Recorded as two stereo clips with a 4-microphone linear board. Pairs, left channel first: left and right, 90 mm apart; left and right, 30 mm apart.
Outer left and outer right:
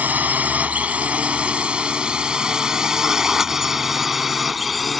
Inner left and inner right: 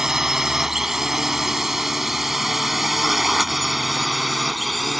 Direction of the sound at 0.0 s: 20° right (ahead or behind).